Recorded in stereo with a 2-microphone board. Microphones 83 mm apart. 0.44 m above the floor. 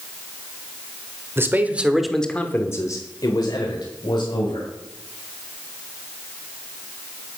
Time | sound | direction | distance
1.4 | a man speaking | 30° right (ahead or behind) | 1.5 m